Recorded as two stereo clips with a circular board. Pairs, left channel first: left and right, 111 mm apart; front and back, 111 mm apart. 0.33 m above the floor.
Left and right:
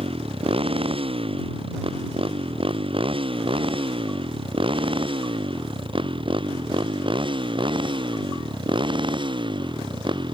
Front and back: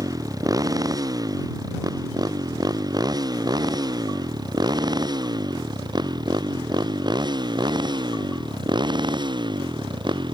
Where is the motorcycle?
125° right; by 10.3 s 135° right.